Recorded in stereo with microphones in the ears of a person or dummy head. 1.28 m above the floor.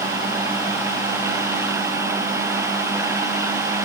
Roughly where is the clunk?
No clunk in this recording.